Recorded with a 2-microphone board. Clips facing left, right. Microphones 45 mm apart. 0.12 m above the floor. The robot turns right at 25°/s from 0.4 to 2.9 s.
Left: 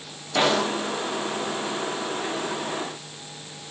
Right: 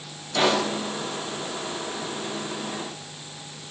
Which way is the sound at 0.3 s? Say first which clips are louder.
Left 1 dB; 20° left (ahead or behind).